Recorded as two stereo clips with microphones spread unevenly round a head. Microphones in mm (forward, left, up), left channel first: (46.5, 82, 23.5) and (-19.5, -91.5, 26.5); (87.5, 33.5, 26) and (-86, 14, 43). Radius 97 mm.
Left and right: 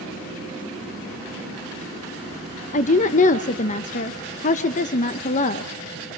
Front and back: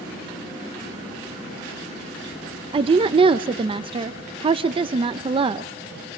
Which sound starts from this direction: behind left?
A woman speaking, at 2.7 s.